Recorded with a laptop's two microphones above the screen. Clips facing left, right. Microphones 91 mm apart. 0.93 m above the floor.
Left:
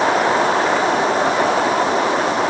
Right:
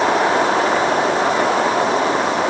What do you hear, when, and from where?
Only background noise.